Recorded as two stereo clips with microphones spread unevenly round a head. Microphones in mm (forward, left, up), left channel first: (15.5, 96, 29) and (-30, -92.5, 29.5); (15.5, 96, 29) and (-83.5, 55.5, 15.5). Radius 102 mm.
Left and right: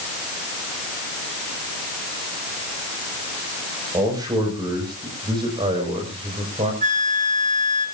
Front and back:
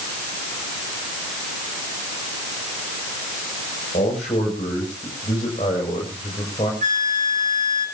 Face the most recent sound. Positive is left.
turn(degrees=-160)